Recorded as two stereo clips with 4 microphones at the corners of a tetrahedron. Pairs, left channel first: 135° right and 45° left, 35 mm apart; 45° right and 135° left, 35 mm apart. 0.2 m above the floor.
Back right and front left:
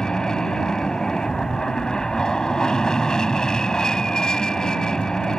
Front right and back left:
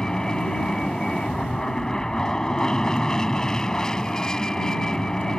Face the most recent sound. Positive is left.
turn(degrees=-95)